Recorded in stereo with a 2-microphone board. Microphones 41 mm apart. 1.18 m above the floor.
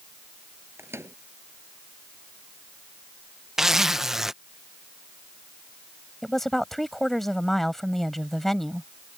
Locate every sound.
0.8 s a microwave: 90° right
3.6 s a zipper: 15° right (ahead or behind)
6.2 s a woman speaking: 5° left (ahead or behind)